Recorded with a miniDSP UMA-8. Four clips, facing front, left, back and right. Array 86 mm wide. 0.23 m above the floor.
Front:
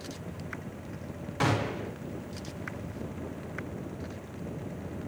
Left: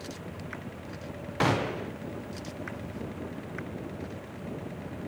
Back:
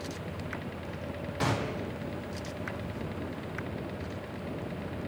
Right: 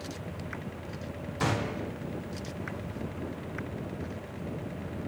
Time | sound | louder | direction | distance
1.4 | a gunshot | left 4 dB, front 3 dB | 75° left | 5 m